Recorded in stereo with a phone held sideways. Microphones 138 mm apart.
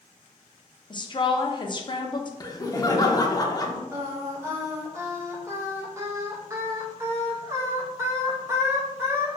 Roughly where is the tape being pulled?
No tape being pulled in this recording.